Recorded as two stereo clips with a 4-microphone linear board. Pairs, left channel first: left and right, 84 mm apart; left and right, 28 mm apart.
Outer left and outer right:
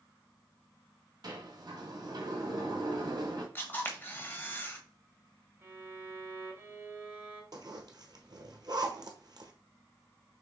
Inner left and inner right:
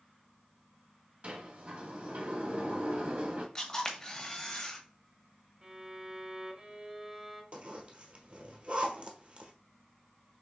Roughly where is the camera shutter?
Left.